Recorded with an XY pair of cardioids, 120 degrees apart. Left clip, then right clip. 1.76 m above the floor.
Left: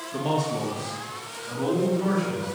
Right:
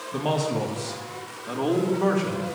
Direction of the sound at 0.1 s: 20° right.